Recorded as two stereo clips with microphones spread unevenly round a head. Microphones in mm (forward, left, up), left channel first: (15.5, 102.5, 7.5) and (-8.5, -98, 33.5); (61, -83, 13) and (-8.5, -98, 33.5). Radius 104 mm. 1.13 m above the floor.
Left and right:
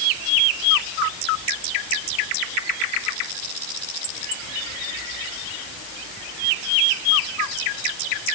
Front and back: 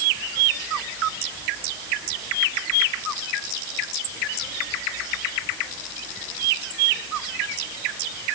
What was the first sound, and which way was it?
Only background noise.